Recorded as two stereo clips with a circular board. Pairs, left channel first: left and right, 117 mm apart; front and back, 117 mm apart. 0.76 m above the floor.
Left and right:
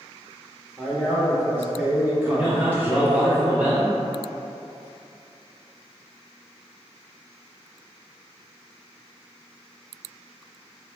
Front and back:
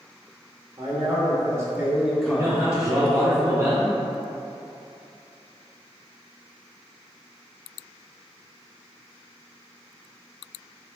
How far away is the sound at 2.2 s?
About 0.7 m.